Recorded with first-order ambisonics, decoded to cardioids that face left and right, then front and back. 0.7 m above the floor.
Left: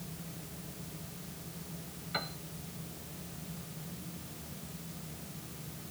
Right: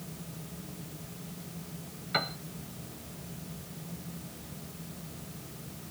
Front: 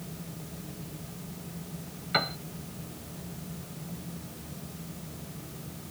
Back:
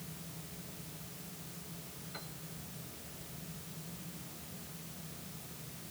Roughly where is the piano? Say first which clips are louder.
Right 7 dB, front 22 dB; ahead right.